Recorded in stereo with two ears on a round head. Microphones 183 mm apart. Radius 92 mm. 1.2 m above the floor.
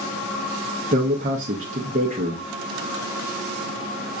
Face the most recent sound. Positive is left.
turn(degrees=-35)  # may be behind; listen again after turning